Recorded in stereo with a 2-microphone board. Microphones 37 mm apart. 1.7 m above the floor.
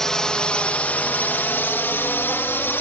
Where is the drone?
15° left (ahead or behind); by 2.8 s 85° left.